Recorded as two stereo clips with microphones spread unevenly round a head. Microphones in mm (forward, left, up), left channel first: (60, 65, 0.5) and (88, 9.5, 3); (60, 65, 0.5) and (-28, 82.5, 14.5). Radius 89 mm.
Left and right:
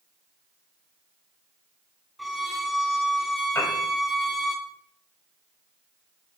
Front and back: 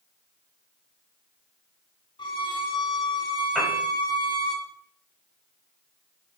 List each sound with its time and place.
2.2 s a violin: 25° left, 2.5 m
3.5 s a piano: 75° left, 6 m